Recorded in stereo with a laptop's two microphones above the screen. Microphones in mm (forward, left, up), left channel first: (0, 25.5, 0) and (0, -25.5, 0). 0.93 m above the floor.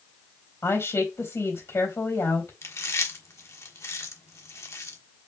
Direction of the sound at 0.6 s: 65° left (ahead or behind).